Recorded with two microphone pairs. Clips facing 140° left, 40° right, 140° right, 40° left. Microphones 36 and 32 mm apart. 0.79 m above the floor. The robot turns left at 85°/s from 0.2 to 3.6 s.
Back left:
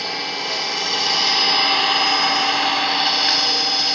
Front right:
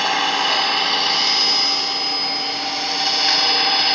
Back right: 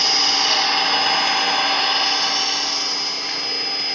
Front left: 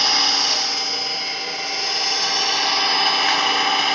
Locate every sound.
0.0 s an engine running: 40° right, 1.1 m; by 4.0 s 30° left, 1.1 m